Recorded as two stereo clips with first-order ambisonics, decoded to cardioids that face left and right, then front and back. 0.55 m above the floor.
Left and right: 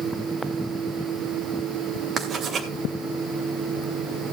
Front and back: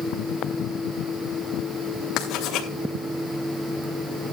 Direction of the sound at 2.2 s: 35° right.